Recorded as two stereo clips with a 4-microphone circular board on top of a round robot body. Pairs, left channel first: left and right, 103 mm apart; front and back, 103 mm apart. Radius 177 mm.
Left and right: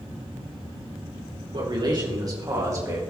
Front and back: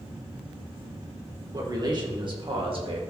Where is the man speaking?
130° right, 2.5 m; by 3.0 s 155° right, 2.5 m.